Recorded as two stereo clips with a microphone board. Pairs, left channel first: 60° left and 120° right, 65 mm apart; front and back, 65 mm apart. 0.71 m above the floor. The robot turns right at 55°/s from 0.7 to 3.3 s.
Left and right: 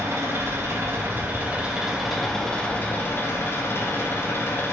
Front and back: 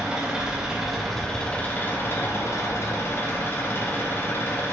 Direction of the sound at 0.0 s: 110° right.